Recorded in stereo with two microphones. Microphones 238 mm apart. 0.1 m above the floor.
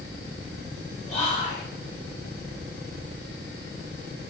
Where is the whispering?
30° left (ahead or behind), 1.8 m.